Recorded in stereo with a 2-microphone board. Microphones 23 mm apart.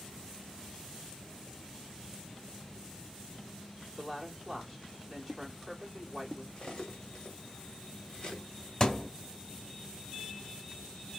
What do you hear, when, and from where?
4.0 s a woman speaking: 5° left (ahead or behind), 1.7 m
6.6 s cutlery clinking: 40° left (ahead or behind), 1.3 m
8.8 s a thud: 25° left (ahead or behind), 0.7 m